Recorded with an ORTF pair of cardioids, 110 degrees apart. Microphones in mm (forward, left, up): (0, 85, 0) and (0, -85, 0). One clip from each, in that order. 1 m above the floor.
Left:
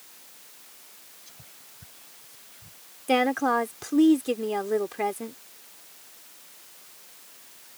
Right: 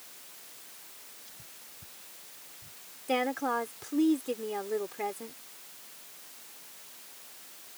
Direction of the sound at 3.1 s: 40° left.